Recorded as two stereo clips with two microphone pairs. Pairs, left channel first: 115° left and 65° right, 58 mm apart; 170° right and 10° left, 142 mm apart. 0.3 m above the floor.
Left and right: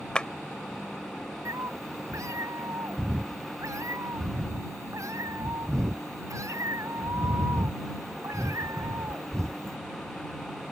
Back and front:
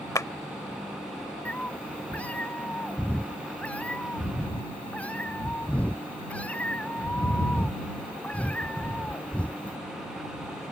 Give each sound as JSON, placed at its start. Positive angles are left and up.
{"t": 0.1, "sound": "a clap", "azimuth_deg": 160}
{"t": 1.4, "sound": "a cat meowing", "azimuth_deg": -90}